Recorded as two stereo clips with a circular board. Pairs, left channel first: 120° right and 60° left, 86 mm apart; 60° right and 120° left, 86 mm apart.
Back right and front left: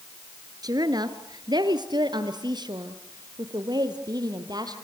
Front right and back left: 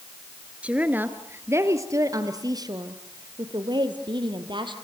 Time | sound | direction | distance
0.6 | a woman speaking | 50° left | 1.6 m